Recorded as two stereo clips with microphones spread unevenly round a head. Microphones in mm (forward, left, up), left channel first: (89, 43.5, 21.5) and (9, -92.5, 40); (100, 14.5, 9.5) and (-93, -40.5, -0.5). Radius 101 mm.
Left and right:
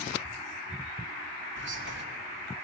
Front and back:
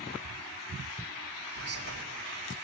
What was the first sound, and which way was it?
Whispering, 125° right.